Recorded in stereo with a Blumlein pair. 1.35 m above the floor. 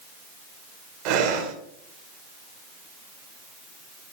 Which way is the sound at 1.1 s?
45° right.